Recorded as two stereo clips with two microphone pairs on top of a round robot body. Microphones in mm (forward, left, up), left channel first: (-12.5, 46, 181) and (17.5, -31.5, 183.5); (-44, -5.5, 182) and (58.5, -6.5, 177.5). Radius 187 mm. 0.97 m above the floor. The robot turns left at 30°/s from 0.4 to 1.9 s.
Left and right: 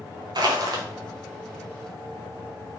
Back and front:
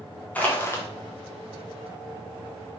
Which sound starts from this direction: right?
Crushing, at 0.3 s.